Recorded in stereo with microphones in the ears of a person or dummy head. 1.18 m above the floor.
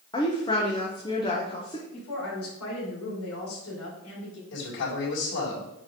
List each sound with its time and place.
0.1 s a woman speaking: 25° left (ahead or behind), 0.9 m
1.9 s a woman speaking: 80° left, 3.5 m
4.5 s a man speaking: 70° left (ahead or behind), 4 m